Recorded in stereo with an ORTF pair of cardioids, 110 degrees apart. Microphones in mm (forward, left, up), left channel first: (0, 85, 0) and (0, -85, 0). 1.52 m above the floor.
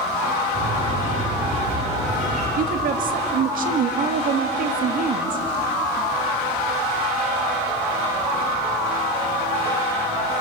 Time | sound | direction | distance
0.5 | a bird | 45° right | 8.5 m
2.6 | a woman speaking | 55° right | 2.0 m